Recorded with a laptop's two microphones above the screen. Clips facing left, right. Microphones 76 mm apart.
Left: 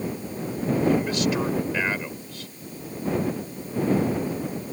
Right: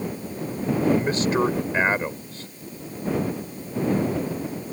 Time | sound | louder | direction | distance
0.9 | a man speaking | right 3 dB | 35° right (ahead or behind) | ?